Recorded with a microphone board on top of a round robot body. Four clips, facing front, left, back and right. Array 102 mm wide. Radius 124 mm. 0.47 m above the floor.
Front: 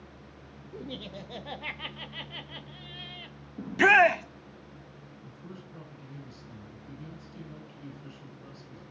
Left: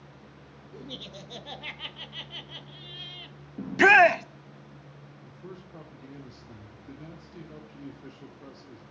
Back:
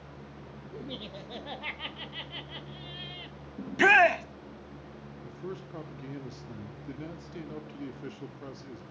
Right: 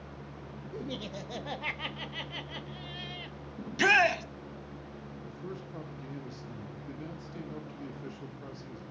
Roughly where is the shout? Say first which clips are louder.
Left 8 dB, front 1 dB; left.